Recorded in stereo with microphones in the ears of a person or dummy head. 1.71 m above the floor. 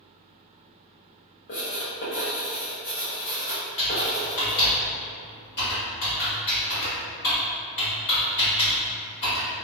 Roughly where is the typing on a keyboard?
Left.